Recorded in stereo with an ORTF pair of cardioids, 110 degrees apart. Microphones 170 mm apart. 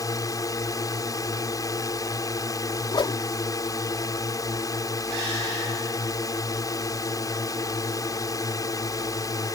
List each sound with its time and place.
0.0 s a drone: 20° left
2.9 s a whoosh: 25° left